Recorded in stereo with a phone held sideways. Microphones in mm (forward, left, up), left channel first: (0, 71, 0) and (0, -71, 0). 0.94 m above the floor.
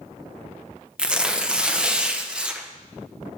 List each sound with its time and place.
1.0 s tearing paper: 5° right (ahead or behind), 0.6 m